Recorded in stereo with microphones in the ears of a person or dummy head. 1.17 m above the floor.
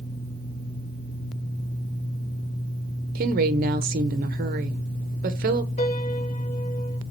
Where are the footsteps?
I don't hear footsteps.